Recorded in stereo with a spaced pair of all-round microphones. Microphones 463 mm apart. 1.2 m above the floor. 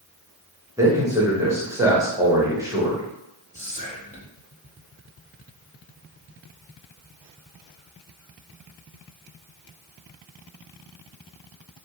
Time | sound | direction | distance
0.8 | a man speaking | 5° right (ahead or behind) | 1.1 m
3.5 | whispering | 15° left (ahead or behind) | 0.9 m